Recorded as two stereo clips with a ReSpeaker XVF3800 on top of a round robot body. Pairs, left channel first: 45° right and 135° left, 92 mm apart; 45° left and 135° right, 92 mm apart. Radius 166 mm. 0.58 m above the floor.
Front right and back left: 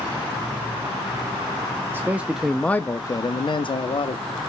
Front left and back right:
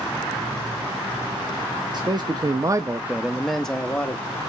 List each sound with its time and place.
1.9 s a man speaking: 160° right, 0.9 m; by 4.2 s 30° right, 1.2 m